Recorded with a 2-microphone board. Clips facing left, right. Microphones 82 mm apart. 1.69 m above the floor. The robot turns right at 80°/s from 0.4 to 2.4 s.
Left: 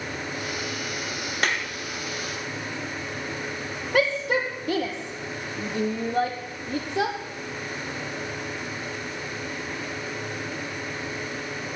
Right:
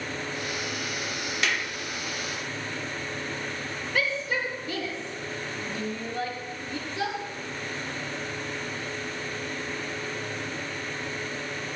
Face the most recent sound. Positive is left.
turn(degrees=60)  # may be behind; listen again after turning